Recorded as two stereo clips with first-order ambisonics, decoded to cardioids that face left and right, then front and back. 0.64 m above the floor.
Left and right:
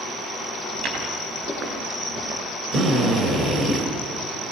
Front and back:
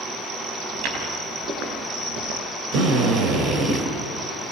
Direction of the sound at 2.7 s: 140° right.